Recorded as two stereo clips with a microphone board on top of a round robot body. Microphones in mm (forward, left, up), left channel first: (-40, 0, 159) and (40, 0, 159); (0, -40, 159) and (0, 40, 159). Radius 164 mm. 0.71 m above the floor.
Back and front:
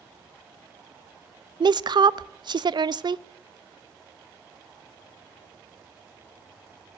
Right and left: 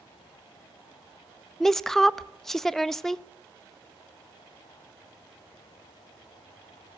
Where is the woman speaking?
5° right, 0.8 m.